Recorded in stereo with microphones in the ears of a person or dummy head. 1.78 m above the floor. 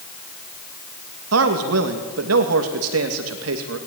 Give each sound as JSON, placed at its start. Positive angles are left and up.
{"t": 1.3, "sound": "a man speaking", "side_deg": -80, "distance_m": 2.5}